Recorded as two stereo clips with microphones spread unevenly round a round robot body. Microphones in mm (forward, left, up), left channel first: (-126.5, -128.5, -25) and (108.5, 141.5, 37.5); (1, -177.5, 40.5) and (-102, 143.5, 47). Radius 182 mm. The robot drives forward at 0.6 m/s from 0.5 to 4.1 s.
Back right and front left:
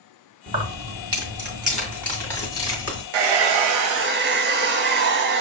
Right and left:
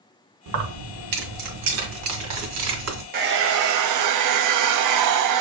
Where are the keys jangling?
120° left, 1.3 m; by 3.0 s 155° left, 2.5 m.